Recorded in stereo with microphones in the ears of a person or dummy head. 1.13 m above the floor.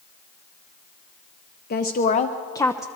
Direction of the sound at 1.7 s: 50° left (ahead or behind).